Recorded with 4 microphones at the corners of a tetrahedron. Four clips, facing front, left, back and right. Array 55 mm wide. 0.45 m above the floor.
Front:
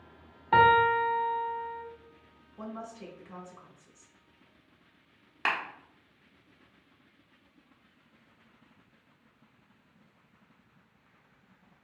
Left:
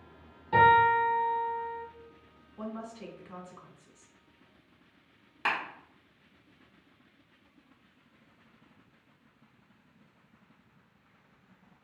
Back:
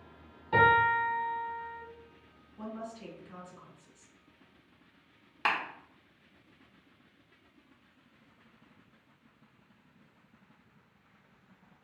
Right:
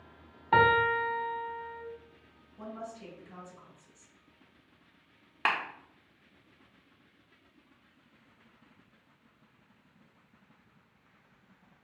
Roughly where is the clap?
Right.